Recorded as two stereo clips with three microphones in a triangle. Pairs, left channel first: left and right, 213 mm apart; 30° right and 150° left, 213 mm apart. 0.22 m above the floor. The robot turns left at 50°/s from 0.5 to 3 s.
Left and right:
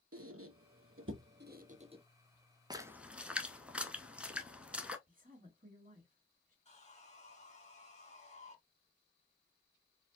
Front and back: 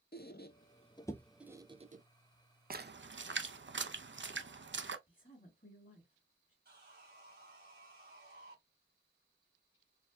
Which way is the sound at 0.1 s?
80° right.